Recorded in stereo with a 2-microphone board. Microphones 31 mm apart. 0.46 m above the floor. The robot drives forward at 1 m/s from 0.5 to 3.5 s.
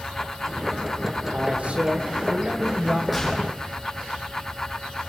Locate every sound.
1.3 s a man speaking: 45° right (ahead or behind), 1.7 m; by 3.0 s 25° right (ahead or behind), 2.5 m
3.1 s a gunshot: 5° right (ahead or behind), 6.5 m